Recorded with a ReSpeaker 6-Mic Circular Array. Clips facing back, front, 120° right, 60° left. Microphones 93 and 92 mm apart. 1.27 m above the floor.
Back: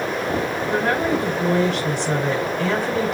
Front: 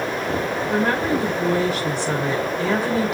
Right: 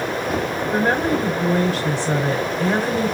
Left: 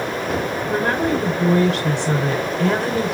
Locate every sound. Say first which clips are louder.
0.7 s a woman speaking: even, right 1 dB; 90° left, 5.5 m